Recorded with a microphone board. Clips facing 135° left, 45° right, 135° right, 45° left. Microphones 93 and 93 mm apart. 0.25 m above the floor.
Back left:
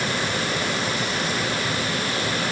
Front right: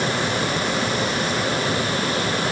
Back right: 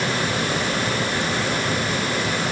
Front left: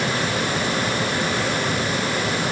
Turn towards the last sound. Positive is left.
No sound to turn to.